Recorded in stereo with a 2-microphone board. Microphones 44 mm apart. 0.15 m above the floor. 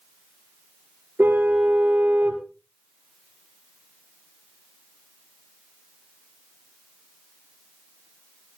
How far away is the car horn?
About 6 m.